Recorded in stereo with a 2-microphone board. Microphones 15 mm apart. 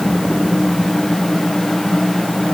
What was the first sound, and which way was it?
Only background noise.